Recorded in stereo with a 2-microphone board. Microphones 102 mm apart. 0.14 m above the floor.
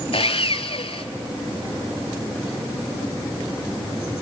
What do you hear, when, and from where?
0.1 s sawing: 70° left (ahead or behind), 0.7 m